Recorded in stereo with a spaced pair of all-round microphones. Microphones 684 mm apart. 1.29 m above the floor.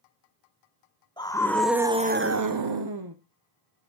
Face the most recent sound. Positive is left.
turn(degrees=-30)  # may be behind; listen again after turning